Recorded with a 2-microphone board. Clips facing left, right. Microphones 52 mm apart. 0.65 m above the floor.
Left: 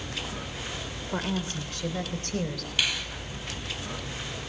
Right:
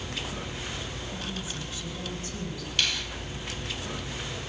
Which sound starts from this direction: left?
A woman speaking, at 1.1 s.